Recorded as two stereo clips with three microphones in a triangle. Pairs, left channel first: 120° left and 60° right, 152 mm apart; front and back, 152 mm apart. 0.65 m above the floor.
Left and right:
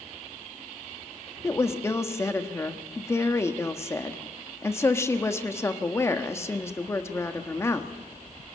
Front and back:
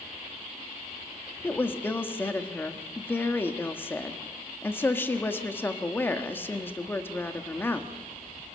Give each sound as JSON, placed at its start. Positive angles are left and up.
{"t": 1.4, "sound": "a woman speaking", "azimuth_deg": 65, "distance_m": 1.3}